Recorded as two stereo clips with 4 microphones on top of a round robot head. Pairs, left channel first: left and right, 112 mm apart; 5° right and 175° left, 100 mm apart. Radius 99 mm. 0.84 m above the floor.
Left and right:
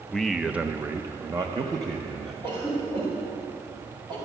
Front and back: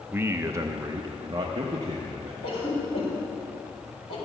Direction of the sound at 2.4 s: 45° right.